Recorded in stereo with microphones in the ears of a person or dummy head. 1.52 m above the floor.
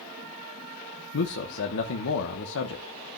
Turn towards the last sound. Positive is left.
turn(degrees=60)  # may be behind; listen again after turning